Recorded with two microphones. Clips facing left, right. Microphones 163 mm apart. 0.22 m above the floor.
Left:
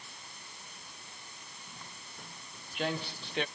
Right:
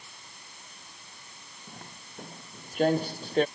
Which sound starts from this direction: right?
Footsteps, at 1.7 s.